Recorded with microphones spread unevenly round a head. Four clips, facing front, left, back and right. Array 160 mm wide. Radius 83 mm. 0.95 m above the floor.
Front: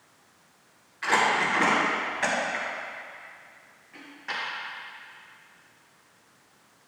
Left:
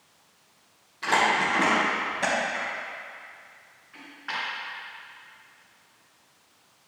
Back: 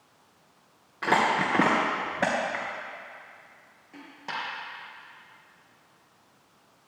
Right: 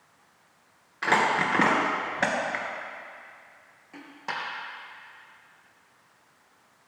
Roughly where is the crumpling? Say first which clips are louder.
Even, even; behind right.